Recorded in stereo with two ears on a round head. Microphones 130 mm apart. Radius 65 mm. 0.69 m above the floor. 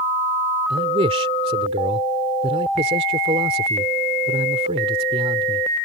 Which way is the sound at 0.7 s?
40° right (ahead or behind).